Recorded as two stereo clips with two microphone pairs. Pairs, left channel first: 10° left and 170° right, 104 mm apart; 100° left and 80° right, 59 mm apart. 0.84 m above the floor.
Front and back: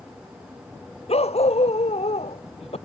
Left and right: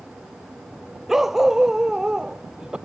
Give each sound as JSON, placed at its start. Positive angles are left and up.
{"t": 1.1, "sound": "a dog barking", "azimuth_deg": 5}